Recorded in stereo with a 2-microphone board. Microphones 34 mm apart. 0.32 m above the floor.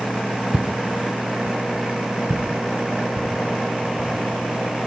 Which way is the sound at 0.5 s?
50° right (ahead or behind).